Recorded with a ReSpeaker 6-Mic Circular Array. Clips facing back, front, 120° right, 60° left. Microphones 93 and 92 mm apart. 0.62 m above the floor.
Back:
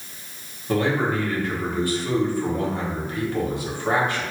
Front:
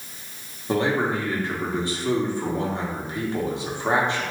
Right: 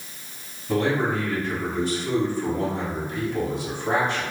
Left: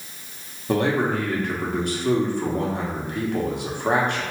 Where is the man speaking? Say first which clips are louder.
Back 1 dB, left 1 dB; 65° left, 1.0 m.